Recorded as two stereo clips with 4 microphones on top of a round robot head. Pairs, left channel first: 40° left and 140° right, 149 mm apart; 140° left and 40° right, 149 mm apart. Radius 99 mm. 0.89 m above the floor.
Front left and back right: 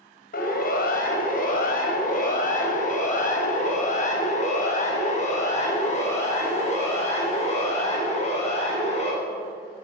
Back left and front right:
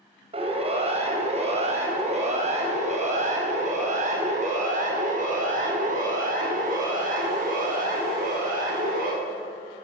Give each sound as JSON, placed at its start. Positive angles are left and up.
{"t": 0.3, "sound": "a siren", "azimuth_deg": 15, "distance_m": 5.0}